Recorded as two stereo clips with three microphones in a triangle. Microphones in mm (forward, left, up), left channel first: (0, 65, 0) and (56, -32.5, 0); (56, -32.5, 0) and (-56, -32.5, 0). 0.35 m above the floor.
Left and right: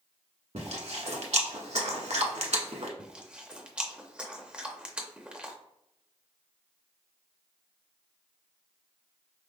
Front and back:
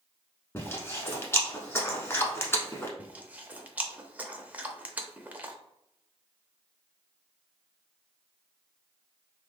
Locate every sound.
0.6 s chewing: 70° right, 0.9 m
3.0 s chewing: 125° right, 0.5 m